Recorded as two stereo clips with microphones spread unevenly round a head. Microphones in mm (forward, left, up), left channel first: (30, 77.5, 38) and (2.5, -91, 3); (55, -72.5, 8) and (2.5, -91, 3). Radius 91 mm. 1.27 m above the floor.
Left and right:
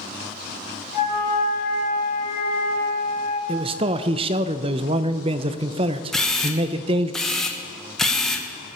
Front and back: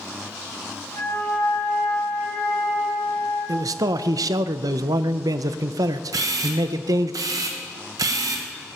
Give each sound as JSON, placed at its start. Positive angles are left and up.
{"t": 0.9, "sound": "a flute", "azimuth_deg": 55, "distance_m": 5.0}
{"t": 3.5, "sound": "a man speaking", "azimuth_deg": -160, "distance_m": 0.6}
{"t": 6.1, "sound": "a camera shutter", "azimuth_deg": 170, "distance_m": 1.0}